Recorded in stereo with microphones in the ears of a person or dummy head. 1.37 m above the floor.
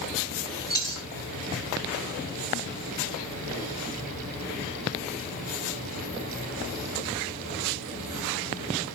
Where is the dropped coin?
20° left (ahead or behind), 2 m.